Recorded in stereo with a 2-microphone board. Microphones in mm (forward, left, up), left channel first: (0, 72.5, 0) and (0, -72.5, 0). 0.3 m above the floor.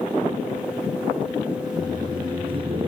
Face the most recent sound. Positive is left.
turn(degrees=-35)  # may be behind; listen again after turning